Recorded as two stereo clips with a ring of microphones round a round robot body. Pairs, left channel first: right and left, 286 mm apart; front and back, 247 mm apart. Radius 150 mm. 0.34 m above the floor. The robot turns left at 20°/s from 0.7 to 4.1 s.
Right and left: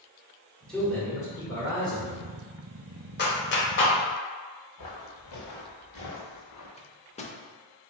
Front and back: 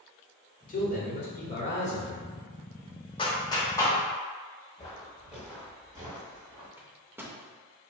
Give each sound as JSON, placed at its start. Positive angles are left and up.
{"t": 0.7, "sound": "a man speaking", "azimuth_deg": -5, "distance_m": 1.3}
{"t": 3.2, "sound": "a clap", "azimuth_deg": -60, "distance_m": 0.9}
{"t": 4.8, "sound": "footsteps", "azimuth_deg": -75, "distance_m": 1.8}
{"t": 6.8, "sound": "a microwave", "azimuth_deg": -110, "distance_m": 0.6}